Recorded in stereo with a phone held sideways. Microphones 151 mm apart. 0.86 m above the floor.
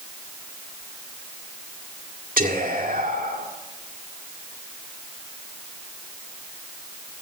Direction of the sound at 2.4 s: 80° right.